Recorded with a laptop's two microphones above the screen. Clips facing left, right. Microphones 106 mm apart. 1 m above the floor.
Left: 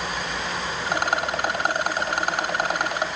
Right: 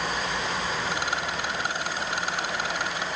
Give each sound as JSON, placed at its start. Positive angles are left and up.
{"t": 0.9, "sound": "a rattle", "side_deg": 55, "distance_m": 1.1}